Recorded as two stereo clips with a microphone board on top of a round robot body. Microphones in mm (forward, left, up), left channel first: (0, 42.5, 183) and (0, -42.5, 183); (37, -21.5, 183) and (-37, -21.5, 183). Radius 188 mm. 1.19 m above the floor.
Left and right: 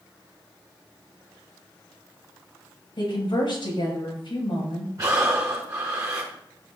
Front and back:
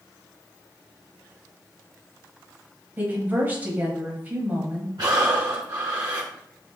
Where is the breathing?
145° right, 1.4 m.